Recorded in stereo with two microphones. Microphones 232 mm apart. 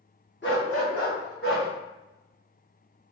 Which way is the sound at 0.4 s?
50° left (ahead or behind).